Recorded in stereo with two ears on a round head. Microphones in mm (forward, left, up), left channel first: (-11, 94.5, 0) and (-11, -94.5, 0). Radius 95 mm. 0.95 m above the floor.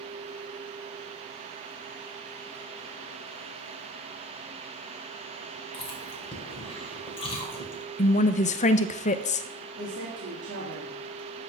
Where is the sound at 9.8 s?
50° right (ahead or behind), 2 m.